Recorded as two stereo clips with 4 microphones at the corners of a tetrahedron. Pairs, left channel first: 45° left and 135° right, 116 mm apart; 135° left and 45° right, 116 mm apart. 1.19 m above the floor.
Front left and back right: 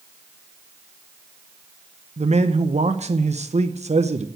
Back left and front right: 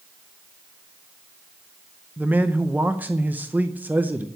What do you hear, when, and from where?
2.2 s a man speaking: 120° right, 0.7 m